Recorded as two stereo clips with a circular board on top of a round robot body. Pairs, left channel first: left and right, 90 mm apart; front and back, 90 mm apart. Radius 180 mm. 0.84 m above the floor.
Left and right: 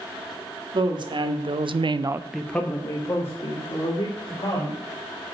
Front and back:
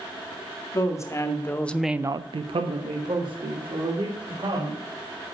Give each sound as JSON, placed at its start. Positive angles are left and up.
{"t": 0.7, "sound": "a woman speaking", "azimuth_deg": -55, "distance_m": 2.0}